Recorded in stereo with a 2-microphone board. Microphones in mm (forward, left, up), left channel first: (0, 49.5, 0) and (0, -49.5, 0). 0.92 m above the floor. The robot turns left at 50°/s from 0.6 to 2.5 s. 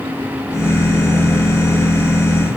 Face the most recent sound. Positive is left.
No sound to turn to.